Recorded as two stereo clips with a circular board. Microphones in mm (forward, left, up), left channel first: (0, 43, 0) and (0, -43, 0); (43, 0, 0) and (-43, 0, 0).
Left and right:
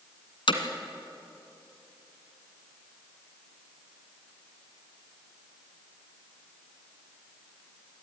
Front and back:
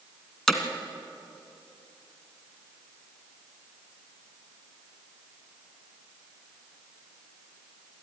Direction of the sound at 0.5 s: 85° left.